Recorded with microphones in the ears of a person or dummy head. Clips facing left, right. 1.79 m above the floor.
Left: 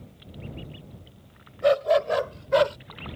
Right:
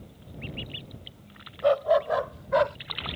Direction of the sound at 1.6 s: 25° left (ahead or behind).